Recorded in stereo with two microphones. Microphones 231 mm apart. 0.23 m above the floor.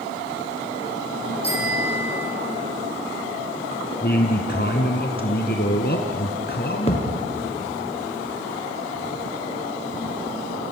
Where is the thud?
25° left (ahead or behind), 6 m.